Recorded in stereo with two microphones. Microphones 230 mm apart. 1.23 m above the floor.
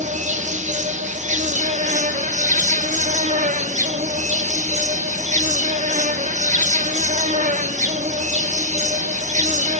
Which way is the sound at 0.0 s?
30° right (ahead or behind).